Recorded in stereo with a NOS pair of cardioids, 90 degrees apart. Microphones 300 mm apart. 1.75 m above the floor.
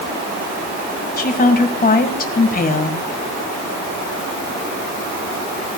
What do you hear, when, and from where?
1.2 s a woman speaking: 30° left, 1.7 m